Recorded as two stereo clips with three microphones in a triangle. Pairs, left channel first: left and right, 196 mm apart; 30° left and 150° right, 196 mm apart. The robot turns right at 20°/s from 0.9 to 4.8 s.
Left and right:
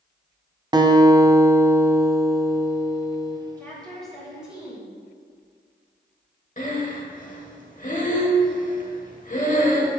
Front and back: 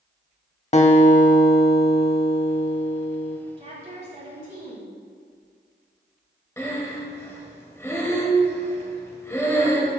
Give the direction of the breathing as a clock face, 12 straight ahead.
9 o'clock.